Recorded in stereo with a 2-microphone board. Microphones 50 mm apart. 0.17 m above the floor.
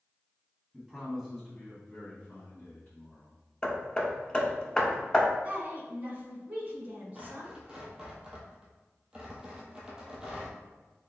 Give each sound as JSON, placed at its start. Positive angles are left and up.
{"t": 0.7, "sound": "a man speaking", "side_deg": -10, "distance_m": 1.4}
{"t": 3.6, "sound": "hammering", "side_deg": 20, "distance_m": 0.6}
{"t": 5.4, "sound": "a woman speaking", "side_deg": -30, "distance_m": 1.3}
{"t": 7.2, "sound": "tearing paper", "side_deg": -15, "distance_m": 1.1}